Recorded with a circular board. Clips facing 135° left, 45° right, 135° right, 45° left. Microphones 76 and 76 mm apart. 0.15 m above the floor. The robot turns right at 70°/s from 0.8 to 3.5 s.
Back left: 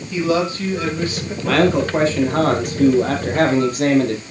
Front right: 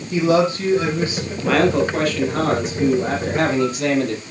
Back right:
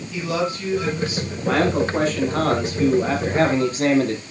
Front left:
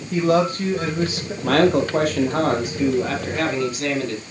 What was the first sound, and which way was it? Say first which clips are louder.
A man speaking: front right 2 dB, front left 6 dB; 5° left.